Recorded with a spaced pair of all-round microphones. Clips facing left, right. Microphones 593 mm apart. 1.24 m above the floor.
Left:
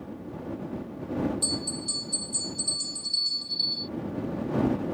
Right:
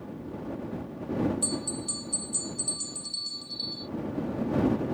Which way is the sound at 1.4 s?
65° left (ahead or behind).